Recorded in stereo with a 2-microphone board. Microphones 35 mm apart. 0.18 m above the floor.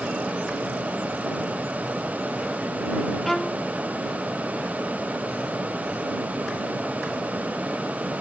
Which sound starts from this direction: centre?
A violin, at 3.2 s.